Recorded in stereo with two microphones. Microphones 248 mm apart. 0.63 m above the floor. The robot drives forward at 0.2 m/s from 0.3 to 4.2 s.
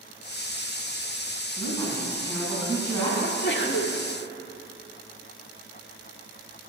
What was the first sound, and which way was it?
A woman speaking, 15° left (ahead or behind).